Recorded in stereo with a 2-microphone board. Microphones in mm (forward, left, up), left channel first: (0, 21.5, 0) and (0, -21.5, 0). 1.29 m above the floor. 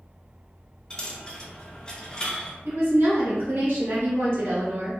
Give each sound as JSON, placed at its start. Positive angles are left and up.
{"t": 0.9, "sound": "a dropped coin", "side_deg": 20, "distance_m": 0.5}
{"t": 2.6, "sound": "a woman speaking", "side_deg": -65, "distance_m": 1.2}